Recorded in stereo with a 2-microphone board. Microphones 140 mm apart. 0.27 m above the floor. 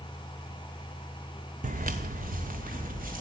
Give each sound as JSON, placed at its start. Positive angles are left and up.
{"t": 1.6, "sound": "footsteps", "side_deg": -70, "distance_m": 0.8}